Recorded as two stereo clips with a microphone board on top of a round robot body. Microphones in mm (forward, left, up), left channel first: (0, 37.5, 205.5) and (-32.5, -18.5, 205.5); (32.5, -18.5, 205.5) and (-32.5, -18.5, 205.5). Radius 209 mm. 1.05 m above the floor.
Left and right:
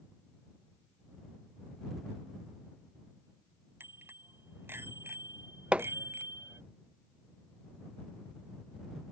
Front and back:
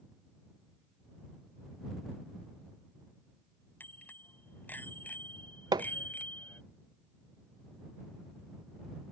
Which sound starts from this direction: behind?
Hammering, at 5.7 s.